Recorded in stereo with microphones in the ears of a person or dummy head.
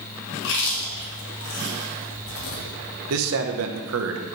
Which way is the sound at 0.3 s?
65° left (ahead or behind).